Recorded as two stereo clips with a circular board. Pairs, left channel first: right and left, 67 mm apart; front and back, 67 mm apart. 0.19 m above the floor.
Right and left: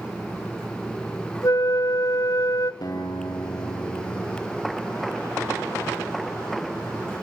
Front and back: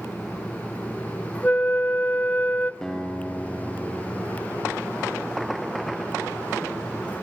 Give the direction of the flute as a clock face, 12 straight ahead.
2 o'clock.